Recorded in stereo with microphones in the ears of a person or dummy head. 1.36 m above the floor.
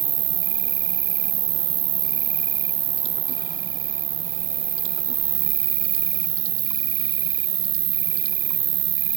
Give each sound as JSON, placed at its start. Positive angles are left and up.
{"t": 0.0, "sound": "an insect", "side_deg": -30}